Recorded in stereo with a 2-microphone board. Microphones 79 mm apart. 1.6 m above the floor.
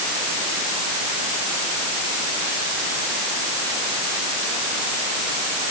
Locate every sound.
Only background noise.